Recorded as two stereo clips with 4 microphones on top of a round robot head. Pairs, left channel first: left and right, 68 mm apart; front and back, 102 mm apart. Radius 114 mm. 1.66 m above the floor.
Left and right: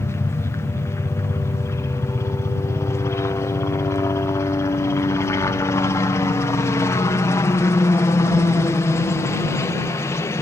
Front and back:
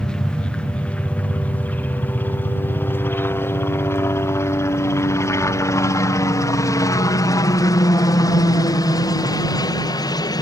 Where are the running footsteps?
No running footsteps in this recording.